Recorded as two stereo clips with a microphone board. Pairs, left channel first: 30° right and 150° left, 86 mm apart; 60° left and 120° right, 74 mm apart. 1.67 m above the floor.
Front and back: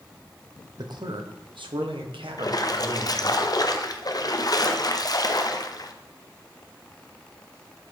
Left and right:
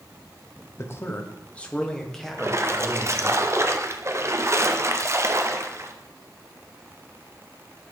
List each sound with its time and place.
0.8 s a man speaking: 115° left, 1.0 m; by 3.4 s 155° left, 2 m
2.4 s a splash: 70° right, 0.7 m